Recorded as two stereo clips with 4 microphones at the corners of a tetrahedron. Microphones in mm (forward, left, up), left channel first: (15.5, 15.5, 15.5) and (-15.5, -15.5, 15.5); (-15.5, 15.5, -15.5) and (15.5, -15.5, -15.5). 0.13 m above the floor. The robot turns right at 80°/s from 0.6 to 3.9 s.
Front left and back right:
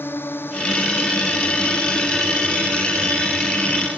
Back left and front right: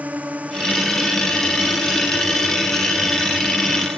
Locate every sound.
0.0 s a drone: 10° left; by 4.0 s 75° right